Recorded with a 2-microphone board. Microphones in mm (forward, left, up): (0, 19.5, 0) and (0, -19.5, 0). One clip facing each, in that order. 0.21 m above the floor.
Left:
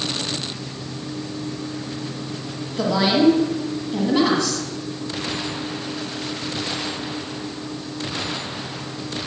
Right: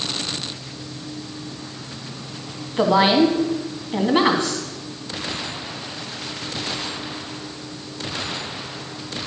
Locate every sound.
2.8 s a woman speaking: 35° right (ahead or behind), 1.4 m